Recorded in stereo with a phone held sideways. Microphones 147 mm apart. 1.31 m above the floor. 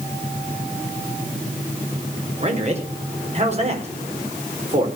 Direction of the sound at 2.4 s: 45° right (ahead or behind).